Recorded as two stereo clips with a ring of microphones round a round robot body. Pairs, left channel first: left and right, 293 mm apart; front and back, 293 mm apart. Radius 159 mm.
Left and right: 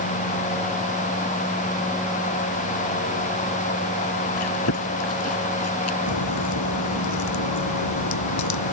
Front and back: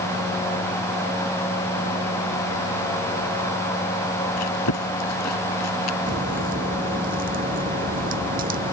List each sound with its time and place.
4.4 s chewing: 45° left
6.1 s a crack: 115° left